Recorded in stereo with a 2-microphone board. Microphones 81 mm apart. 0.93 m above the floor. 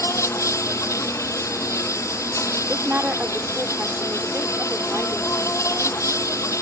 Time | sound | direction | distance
0.0 | an insect | 45° left (ahead or behind) | ?
2.7 | a woman speaking | 20° right (ahead or behind) | ?